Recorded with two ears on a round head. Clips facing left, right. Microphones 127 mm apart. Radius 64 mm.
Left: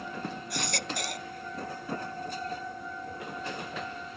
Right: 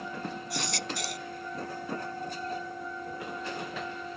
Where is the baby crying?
45° left (ahead or behind).